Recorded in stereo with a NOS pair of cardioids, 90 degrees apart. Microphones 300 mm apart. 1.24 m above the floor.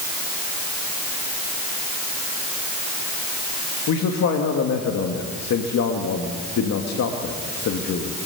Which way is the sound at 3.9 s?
60° left.